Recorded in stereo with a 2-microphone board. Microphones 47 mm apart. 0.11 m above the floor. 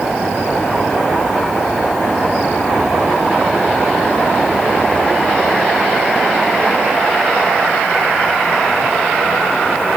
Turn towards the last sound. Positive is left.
No sound to turn to.